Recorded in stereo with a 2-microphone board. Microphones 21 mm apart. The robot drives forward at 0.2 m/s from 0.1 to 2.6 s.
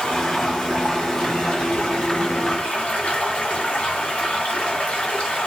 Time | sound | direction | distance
0.0 | running water | 55° left (ahead or behind) | 1.4 m